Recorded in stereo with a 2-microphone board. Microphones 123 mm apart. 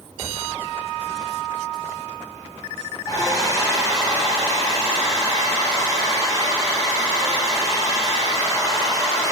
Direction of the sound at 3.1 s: 30° left (ahead or behind).